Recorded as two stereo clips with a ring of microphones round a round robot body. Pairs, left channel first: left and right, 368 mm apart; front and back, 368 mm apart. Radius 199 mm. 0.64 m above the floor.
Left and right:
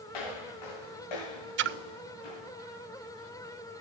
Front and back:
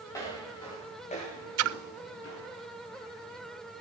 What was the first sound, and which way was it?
Footsteps, 85° left.